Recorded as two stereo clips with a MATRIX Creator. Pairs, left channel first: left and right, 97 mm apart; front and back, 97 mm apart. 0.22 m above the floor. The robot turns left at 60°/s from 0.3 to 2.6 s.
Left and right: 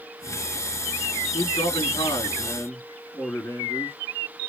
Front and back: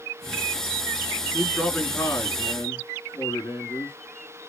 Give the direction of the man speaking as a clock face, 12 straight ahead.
9 o'clock.